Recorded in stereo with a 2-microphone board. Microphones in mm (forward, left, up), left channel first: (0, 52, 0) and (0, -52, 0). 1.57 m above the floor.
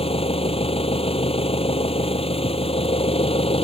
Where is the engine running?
65° left (ahead or behind).